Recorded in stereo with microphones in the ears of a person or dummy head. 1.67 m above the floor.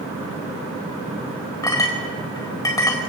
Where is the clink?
20° left (ahead or behind), 4 m.